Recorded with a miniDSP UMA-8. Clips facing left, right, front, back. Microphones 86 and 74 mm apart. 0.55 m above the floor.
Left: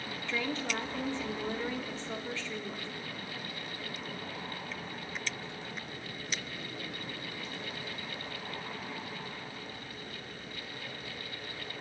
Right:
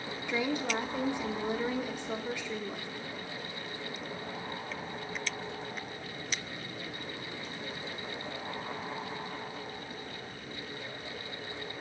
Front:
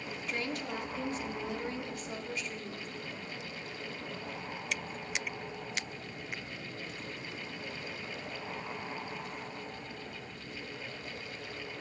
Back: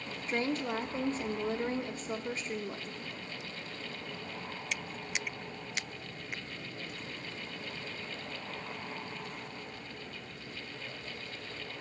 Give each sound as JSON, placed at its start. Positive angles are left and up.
{"t": 0.3, "sound": "a woman speaking", "azimuth_deg": -155, "distance_m": 0.9}